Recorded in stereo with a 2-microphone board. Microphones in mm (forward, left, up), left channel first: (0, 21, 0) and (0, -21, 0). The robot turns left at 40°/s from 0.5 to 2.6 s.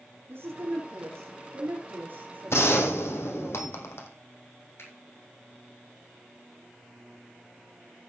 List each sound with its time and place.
0.3 s a woman speaking: 65° right, 4.5 m; by 3.5 s 150° right, 4.5 m
2.5 s a gunshot: 70° left (ahead or behind), 2 m; by 4.1 s 75° left (ahead or behind), 2 m
4.8 s a finger snap: 75° left (ahead or behind), 4.5 m